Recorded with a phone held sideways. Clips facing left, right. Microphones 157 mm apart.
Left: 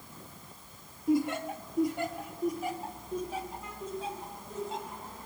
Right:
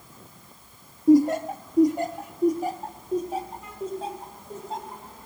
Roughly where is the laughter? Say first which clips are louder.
Right 10 dB; right.